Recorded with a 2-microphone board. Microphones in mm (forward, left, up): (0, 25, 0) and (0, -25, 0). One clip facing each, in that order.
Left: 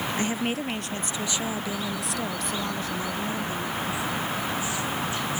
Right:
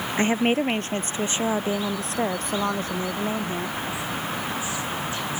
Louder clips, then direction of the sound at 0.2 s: Right 10 dB; 35° right (ahead or behind).